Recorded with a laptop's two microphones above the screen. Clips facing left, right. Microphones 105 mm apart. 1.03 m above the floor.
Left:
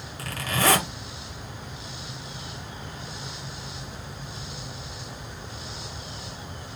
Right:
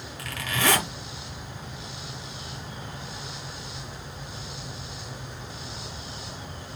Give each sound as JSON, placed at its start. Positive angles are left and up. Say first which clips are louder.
{"t": 0.2, "sound": "a zipper", "louder": "left 2 dB", "side_deg": 40, "distance_m": 1.5}